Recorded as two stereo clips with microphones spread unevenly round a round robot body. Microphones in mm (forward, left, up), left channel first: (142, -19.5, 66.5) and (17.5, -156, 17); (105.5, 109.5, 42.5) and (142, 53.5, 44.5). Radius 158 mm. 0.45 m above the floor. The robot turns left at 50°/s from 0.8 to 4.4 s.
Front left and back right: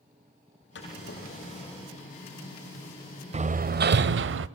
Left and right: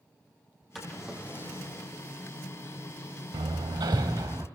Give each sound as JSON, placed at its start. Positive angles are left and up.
{"t": 0.8, "sound": "a drawer", "azimuth_deg": 30, "distance_m": 9.0}
{"t": 3.3, "sound": "hammering", "azimuth_deg": -75, "distance_m": 0.7}